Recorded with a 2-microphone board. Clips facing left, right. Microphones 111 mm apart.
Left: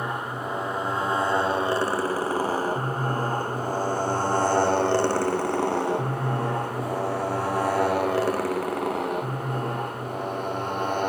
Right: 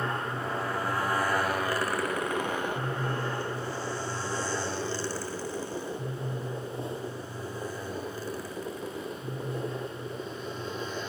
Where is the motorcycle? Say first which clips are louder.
Left 2 dB; 15° left (ahead or behind); by 11.1 s 60° left (ahead or behind).